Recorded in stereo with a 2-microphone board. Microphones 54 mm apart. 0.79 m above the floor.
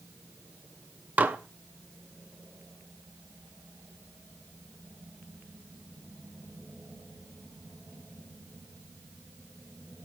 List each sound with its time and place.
1.2 s dishes clattering: 30° right (ahead or behind), 0.7 m